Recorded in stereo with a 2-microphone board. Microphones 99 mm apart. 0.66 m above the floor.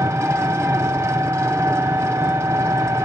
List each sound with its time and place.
0.0 s an engine running: 30° right (ahead or behind), 0.8 m